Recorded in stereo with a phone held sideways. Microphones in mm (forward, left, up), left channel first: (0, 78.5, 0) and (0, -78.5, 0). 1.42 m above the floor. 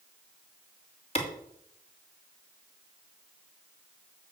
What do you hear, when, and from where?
1.1 s a clap: 40° left (ahead or behind), 2.5 m